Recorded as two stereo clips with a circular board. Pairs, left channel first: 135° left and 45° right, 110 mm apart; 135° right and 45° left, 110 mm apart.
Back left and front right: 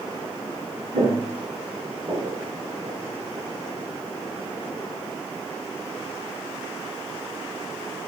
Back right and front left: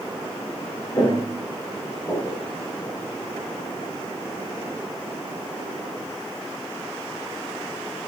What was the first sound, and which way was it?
Footsteps, 70° right.